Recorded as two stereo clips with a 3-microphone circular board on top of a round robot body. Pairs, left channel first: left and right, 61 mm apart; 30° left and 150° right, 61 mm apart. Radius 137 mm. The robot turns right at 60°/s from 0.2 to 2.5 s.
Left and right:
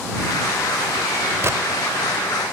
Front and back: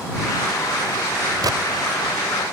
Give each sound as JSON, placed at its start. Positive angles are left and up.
{"t": 1.4, "sound": "a gunshot", "azimuth_deg": -140}